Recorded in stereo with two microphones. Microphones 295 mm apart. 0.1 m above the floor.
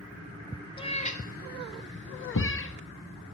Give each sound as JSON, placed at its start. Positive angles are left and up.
{"t": 0.8, "sound": "a cat meowing", "side_deg": 15, "distance_m": 0.9}
{"t": 2.3, "sound": "a thud", "side_deg": 70, "distance_m": 1.3}